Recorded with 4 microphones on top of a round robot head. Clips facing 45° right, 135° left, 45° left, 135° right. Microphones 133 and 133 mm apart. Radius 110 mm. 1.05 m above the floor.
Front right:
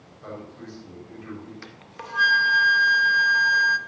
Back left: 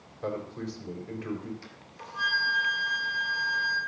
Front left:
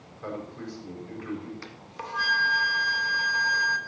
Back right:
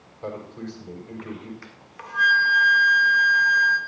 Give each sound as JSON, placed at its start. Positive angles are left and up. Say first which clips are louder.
{"t": 0.2, "sound": "a man speaking", "louder": "back left 5 dB, back right 2 dB", "azimuth_deg": 160, "distance_m": 4.5}
{"t": 1.6, "sound": "a flute", "louder": "front right 5 dB, front left 3 dB", "azimuth_deg": -15, "distance_m": 0.5}